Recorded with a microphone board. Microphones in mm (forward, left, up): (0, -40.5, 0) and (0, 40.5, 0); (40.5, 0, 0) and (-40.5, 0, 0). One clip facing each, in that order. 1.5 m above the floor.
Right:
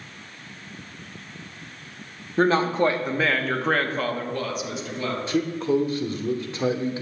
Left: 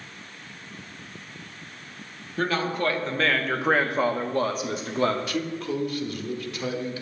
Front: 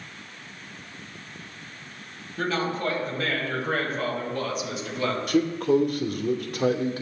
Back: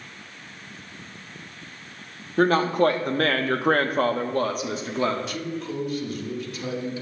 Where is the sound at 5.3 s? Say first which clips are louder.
Right 6 dB, front 9 dB; 30° right, 1.1 m.